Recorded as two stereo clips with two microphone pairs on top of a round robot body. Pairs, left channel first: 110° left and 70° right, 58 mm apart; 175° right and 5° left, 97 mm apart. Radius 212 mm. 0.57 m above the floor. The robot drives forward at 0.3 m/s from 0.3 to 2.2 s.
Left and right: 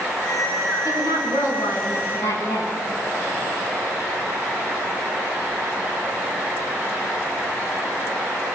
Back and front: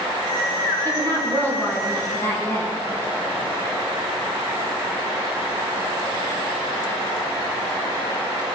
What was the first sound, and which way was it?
A woman speaking, 110° left.